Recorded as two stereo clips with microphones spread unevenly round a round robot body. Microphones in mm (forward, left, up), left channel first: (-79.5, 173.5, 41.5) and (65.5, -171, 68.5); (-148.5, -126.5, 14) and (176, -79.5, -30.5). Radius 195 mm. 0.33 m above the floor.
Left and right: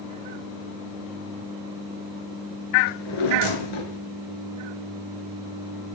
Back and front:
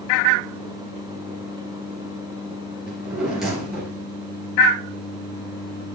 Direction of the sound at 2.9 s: 95° left.